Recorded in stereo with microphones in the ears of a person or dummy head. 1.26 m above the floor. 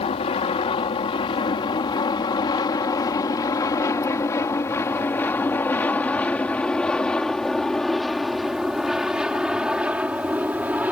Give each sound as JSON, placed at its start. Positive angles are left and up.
{"t": 0.0, "sound": "an aircraft", "side_deg": 30}